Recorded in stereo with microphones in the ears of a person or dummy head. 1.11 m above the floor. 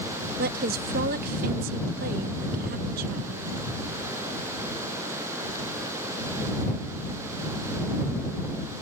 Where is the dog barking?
No dog barking in this recording.